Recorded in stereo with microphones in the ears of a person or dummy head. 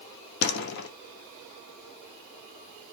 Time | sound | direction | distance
0.4 | a door slam | 60° left (ahead or behind) | 2 m